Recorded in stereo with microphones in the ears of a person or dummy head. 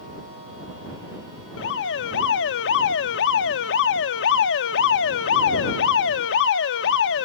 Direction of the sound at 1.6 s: 70° left (ahead or behind).